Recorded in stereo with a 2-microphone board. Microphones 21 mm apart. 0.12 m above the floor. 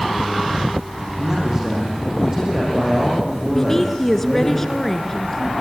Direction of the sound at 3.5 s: 15° left (ahead or behind).